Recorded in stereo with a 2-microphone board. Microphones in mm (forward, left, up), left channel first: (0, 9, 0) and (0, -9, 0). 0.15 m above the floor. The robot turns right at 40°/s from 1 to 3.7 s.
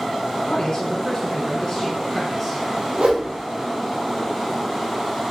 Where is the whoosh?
60° right (ahead or behind), 3.5 m; by 3.3 s 70° right (ahead or behind), 3.5 m.